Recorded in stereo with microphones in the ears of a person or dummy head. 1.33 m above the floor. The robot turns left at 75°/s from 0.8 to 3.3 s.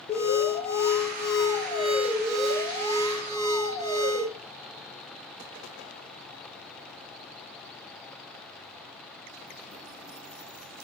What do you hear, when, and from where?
0.1 s an alarm: 85° left, 0.9 m; by 4.3 s 105° right, 0.9 m